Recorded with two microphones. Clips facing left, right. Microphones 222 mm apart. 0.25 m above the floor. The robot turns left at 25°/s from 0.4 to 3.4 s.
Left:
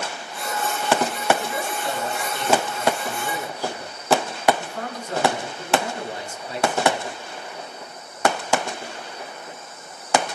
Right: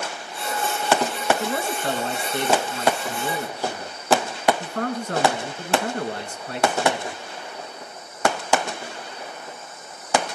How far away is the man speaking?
About 3.5 m.